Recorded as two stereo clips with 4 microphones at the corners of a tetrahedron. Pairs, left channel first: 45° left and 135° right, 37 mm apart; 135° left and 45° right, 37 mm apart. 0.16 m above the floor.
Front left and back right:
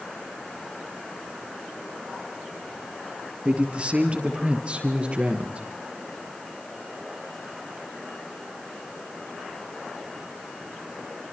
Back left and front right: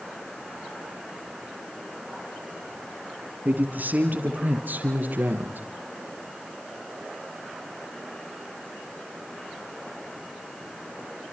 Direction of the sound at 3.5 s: 80° right.